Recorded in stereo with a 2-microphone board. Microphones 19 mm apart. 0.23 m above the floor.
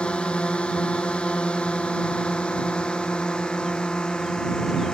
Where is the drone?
80° left; by 5.0 s 50° left (ahead or behind).